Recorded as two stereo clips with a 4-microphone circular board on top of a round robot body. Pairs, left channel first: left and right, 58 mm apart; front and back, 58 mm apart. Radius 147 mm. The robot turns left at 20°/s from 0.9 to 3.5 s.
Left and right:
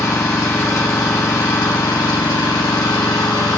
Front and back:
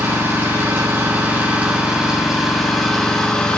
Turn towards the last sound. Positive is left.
turn(degrees=75)